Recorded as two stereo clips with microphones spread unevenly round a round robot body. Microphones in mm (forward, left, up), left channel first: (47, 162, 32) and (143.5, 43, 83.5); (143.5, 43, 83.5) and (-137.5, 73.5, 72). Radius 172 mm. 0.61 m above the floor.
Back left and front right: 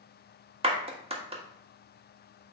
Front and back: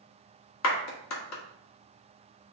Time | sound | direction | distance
0.6 | a clap | 10° left | 1.7 m